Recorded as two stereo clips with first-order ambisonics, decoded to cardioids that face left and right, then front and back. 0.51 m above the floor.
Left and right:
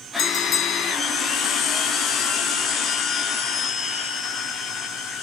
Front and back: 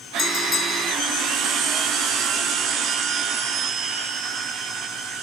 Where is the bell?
65° left, 0.8 m.